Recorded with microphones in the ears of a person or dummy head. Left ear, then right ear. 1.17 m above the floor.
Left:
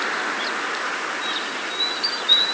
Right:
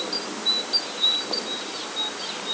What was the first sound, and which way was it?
Only background noise.